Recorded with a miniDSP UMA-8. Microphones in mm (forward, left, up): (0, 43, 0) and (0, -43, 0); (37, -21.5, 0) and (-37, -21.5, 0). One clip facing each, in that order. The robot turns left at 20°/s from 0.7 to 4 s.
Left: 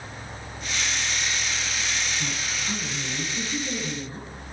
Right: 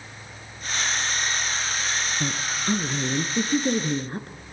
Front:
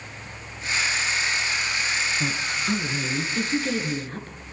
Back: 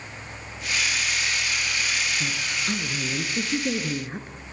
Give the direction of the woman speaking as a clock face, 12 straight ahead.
2 o'clock.